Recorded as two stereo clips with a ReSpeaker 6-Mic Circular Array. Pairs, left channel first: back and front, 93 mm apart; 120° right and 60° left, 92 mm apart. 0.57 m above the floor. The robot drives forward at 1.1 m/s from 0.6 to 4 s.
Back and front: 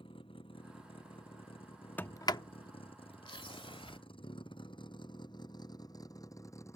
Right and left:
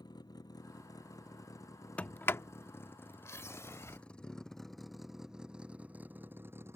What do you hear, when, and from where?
0.0 s a vehicle: 165° right; by 6.8 s 120° left
2.0 s a sliding door: 165° right; by 4.0 s straight behind